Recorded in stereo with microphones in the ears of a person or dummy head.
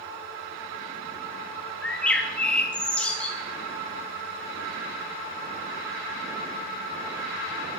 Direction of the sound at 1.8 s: Centre (ahead or behind).